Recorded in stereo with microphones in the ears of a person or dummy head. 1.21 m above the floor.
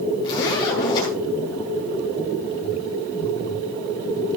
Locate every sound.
0.2 s a zipper: 20° left (ahead or behind), 5 m